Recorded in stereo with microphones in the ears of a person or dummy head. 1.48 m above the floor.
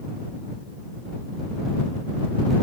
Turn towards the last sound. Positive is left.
No sound to turn to.